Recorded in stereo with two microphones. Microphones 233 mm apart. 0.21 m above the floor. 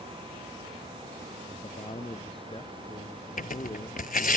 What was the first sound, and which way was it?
A man speaking, 25° left (ahead or behind).